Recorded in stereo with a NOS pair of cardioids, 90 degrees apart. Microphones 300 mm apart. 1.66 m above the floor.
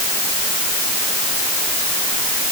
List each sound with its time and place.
Only background noise.